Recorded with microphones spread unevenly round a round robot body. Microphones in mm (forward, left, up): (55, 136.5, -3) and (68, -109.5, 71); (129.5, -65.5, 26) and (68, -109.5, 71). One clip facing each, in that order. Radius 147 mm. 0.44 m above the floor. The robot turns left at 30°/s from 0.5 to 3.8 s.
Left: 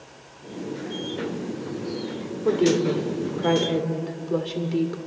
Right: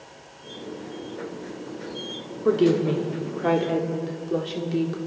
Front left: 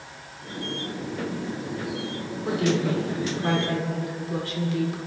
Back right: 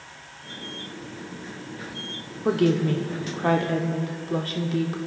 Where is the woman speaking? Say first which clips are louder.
Right 1 dB, back right 3 dB; 165° right, 1.2 m; by 5.0 s 155° left, 1.2 m.